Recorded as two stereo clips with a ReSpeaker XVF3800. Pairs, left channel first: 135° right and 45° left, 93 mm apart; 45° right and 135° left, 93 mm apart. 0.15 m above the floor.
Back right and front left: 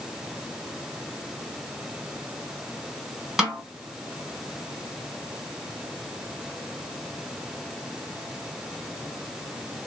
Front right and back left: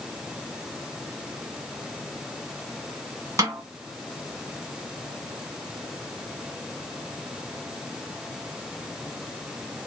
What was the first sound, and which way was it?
A snare drum, 125° left.